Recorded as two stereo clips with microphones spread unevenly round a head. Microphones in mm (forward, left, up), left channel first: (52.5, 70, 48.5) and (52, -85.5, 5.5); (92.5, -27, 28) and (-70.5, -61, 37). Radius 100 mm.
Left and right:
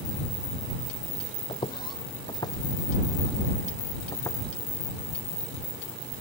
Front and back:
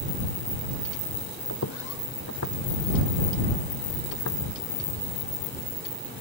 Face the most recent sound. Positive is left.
turn(degrees=25)